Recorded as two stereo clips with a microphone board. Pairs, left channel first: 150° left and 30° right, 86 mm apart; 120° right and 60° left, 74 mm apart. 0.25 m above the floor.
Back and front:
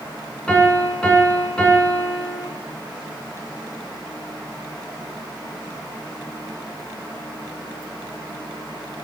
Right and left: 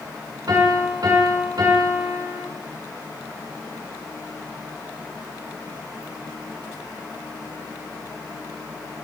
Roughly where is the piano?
Left.